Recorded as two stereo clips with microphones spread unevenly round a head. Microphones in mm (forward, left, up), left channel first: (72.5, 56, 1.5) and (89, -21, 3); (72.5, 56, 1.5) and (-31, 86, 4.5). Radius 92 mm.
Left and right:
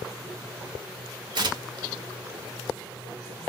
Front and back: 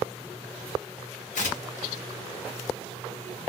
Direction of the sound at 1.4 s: 50° right.